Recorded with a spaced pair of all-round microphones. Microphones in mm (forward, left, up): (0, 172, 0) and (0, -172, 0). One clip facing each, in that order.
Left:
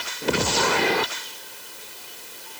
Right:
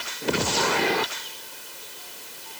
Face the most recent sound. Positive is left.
No sound to turn to.